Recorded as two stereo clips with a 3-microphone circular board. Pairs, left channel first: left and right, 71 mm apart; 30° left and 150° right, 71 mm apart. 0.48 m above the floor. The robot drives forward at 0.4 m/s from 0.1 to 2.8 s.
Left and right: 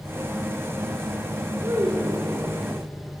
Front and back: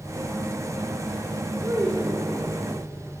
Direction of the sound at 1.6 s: 135° right.